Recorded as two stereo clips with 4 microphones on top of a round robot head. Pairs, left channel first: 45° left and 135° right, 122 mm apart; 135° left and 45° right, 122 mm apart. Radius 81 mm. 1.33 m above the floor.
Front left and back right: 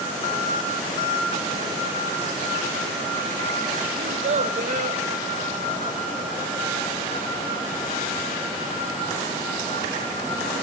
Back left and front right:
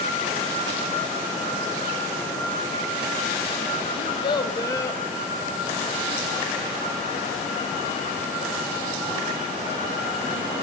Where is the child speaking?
Straight behind, 1.2 m; by 5.0 s 155° right, 1.5 m.